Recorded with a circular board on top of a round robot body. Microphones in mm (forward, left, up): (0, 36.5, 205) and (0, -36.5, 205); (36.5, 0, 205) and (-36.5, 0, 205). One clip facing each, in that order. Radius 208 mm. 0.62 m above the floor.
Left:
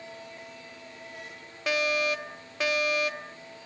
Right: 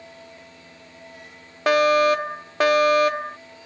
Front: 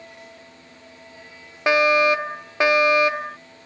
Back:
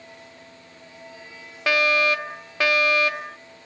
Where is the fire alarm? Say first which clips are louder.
Right 11 dB, front 4 dB; 65° right.